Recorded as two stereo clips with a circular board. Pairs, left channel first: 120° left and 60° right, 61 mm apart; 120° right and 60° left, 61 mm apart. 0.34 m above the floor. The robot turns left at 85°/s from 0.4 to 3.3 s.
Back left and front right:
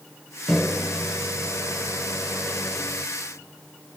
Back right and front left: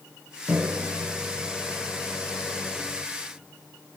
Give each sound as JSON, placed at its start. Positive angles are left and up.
{"t": 0.5, "sound": "a microwave", "azimuth_deg": 45, "distance_m": 1.1}